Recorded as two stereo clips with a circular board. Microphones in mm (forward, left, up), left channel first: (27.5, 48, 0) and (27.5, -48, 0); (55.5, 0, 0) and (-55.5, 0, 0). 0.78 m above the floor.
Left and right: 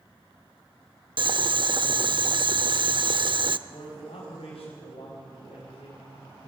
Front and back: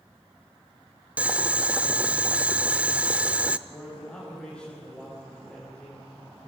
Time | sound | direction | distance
1.2 | boiling | 100° right | 0.6 m
3.7 | a man speaking | 85° left | 5.5 m